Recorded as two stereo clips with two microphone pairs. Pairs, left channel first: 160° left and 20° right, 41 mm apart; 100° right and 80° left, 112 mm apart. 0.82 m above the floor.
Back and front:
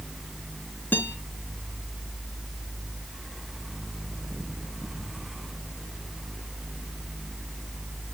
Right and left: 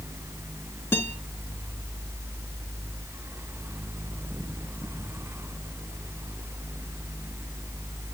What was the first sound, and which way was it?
A guitar, 165° right.